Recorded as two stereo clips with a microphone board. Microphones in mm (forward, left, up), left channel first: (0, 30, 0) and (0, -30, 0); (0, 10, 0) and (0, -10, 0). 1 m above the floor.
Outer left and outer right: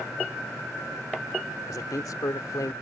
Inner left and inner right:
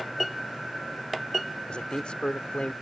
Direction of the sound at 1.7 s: 65° left (ahead or behind).